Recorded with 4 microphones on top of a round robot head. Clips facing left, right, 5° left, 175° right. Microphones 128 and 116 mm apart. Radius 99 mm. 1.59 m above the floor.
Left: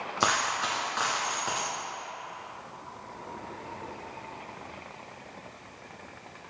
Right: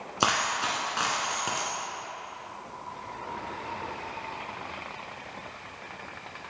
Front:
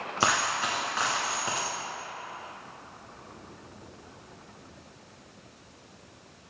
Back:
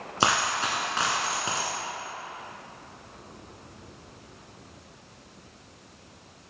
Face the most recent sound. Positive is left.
turn(degrees=-135)